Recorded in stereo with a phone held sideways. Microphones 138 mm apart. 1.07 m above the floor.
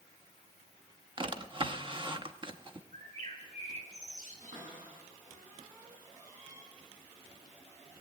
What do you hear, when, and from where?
1.2 s a drawer: 40° right (ahead or behind), 0.7 m
2.9 s a bird: 65° right (ahead or behind), 2.5 m
4.4 s a cupboard door: 75° right (ahead or behind), 10 m